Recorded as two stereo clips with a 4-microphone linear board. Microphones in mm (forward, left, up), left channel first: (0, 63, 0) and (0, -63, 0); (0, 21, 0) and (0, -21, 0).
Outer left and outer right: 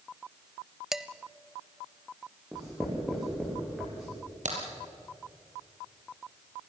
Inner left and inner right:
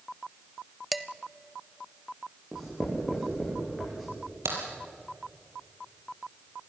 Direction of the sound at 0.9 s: 5° right (ahead or behind).